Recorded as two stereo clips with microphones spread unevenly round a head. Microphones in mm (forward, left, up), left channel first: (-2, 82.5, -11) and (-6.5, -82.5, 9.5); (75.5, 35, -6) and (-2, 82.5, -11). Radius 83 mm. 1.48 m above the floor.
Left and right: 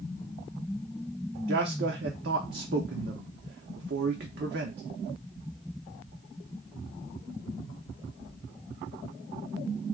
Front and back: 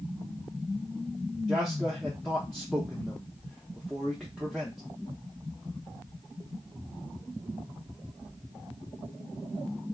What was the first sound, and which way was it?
A man speaking, 120° right.